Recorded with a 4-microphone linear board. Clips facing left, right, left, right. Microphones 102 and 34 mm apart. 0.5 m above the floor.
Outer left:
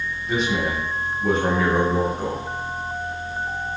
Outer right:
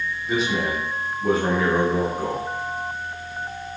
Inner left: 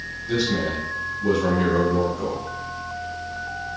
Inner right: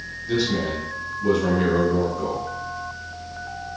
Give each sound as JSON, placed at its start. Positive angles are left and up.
{"t": 0.3, "sound": "a man speaking", "side_deg": 0, "distance_m": 0.9}